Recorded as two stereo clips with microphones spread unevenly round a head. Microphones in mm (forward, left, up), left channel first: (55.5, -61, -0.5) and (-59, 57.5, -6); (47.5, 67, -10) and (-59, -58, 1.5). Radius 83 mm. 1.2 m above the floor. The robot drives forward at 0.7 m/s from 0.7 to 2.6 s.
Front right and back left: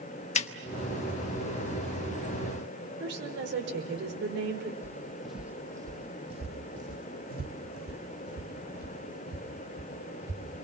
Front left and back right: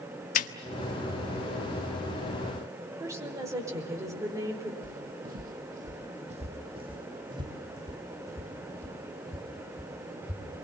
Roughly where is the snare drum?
Ahead.